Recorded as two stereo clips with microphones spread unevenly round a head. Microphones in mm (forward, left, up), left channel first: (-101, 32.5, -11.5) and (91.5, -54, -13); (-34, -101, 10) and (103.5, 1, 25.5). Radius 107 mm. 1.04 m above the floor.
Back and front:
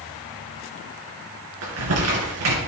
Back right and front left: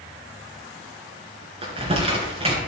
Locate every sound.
1.6 s crumpling: 15° right, 3 m